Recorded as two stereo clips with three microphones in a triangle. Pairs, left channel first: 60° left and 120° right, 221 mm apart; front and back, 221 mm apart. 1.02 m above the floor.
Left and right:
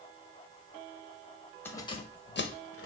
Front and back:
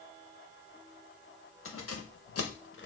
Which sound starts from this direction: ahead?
Keys jangling, at 1.6 s.